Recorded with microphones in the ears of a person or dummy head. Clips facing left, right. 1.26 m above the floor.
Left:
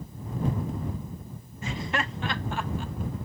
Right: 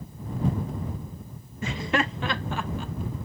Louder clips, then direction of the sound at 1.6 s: Right 5 dB; 50° right (ahead or behind).